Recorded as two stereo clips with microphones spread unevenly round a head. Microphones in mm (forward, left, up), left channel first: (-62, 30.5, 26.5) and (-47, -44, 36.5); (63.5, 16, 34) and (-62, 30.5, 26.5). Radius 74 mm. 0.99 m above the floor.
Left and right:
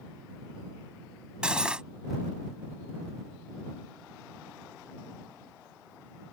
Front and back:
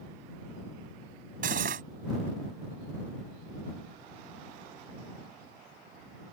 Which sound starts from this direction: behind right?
Cutlery clinking, at 1.4 s.